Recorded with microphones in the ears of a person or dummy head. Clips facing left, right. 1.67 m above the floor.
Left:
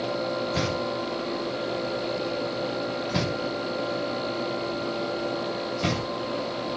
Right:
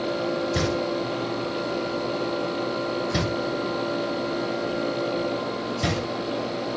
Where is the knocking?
10° right (ahead or behind), 3.5 m.